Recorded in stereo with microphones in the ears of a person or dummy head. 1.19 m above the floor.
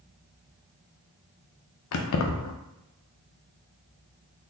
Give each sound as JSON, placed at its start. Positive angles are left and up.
{"t": 1.9, "sound": "keys jangling", "side_deg": 85, "distance_m": 0.5}